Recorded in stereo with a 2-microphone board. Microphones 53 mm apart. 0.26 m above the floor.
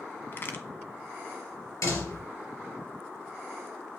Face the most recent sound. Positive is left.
turn(degrees=75)  # may be behind; listen again after turning